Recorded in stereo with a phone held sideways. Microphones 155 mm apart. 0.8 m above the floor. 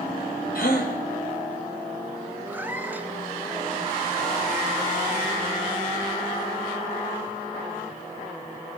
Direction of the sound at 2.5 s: 10° right (ahead or behind).